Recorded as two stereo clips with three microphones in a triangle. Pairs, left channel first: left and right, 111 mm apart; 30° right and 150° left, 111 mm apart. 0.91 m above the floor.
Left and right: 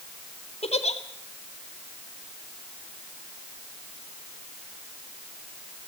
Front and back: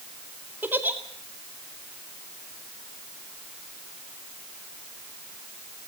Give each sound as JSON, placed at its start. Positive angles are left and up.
{"t": 0.6, "sound": "a giggle", "azimuth_deg": 80, "distance_m": 2.0}